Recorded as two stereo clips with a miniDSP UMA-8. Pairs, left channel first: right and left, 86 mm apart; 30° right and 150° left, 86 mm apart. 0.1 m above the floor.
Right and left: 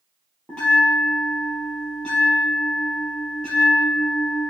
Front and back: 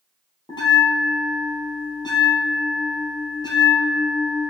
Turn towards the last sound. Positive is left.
turn(degrees=-10)